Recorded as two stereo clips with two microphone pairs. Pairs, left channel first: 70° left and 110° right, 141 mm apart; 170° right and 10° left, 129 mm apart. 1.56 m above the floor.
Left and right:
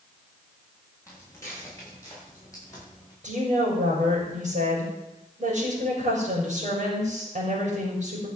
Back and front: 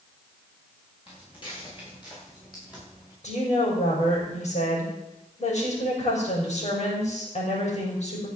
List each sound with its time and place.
1.1 s footsteps: 140° left, 9 m; by 3.1 s 135° left, 9 m
3.2 s a woman speaking: 140° right, 5.5 m